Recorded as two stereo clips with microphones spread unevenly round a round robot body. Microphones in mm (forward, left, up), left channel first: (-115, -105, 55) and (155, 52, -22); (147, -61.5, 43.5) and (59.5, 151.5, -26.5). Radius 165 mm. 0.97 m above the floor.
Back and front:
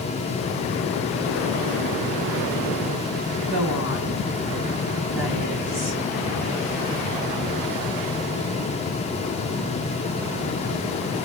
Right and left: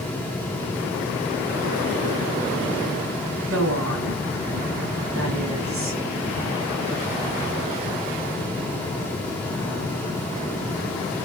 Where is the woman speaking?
85° left, 6 m.